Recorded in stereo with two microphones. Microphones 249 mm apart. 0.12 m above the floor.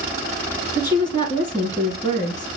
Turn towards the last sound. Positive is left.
turn(degrees=20)  # may be behind; listen again after turning